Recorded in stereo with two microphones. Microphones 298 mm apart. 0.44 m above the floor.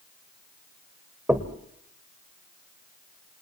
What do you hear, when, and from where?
1.3 s knocking: 5° right (ahead or behind), 1.6 m